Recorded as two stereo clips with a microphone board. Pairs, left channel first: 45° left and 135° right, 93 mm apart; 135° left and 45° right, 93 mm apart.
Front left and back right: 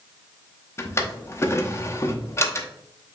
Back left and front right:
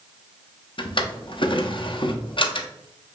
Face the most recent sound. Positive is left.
turn(degrees=105)